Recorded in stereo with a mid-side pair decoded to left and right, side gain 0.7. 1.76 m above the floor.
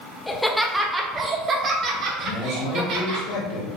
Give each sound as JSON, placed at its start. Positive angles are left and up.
{"t": 0.3, "sound": "laughter", "azimuth_deg": 10, "distance_m": 1.1}
{"t": 2.2, "sound": "a man speaking", "azimuth_deg": 65, "distance_m": 1.8}